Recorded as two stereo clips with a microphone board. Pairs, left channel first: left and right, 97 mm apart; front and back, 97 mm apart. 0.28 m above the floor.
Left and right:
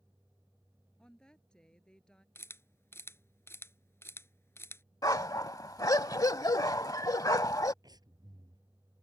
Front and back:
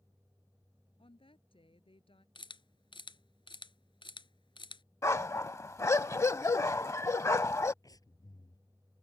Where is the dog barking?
50° left.